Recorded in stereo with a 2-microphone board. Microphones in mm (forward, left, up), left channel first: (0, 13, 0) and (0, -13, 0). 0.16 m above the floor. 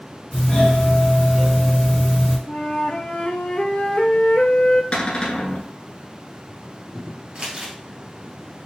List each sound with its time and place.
0.3 s a doorbell: 20° left (ahead or behind), 2.5 m
2.5 s a flute: 50° left (ahead or behind), 0.6 m
4.9 s a cupboard door: 40° left (ahead or behind), 1.1 m
7.3 s crumpling: 30° right (ahead or behind), 1.4 m